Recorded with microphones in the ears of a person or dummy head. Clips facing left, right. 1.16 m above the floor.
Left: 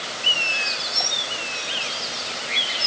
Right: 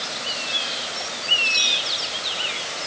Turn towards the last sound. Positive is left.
No sound to turn to.